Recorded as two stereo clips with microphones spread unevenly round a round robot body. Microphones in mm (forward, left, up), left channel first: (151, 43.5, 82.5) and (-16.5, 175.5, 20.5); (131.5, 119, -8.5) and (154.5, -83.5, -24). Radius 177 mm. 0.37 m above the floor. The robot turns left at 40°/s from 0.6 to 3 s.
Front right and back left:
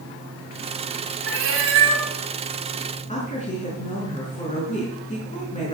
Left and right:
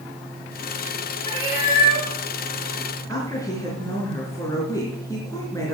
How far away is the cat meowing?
About 1.7 m.